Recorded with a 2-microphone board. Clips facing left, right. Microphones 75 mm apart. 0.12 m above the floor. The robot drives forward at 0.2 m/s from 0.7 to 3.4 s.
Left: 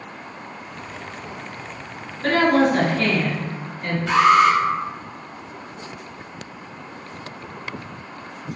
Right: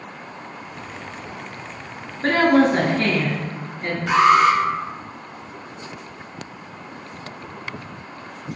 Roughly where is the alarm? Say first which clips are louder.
Even; centre.